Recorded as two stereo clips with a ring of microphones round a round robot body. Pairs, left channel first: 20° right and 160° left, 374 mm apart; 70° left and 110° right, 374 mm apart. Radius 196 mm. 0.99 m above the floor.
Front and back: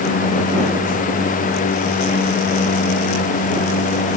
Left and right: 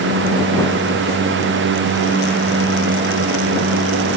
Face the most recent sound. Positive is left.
No sound to turn to.